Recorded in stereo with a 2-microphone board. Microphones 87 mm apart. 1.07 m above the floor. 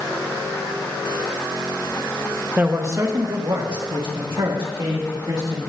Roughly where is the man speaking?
Centre.